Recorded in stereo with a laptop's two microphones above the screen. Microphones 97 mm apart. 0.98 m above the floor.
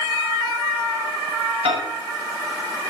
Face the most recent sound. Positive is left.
turn(degrees=-75)  # may be behind; listen again after turning